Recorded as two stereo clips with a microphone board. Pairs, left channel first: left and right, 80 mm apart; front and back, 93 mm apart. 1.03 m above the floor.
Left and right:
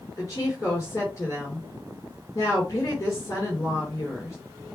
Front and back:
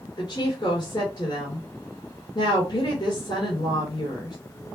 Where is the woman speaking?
40° left, 3.5 m.